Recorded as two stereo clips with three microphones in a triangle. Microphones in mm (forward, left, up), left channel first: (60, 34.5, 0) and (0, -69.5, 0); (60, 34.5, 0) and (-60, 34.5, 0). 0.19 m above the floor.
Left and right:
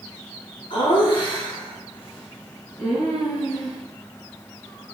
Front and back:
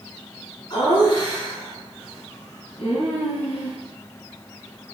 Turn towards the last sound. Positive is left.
turn(degrees=0)